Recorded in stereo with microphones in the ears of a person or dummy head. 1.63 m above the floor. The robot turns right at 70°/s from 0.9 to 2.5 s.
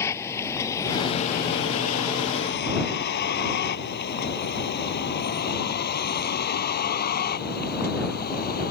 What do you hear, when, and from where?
0.0 s a vehicle: 10° left (ahead or behind); by 8.7 s 45° left (ahead or behind)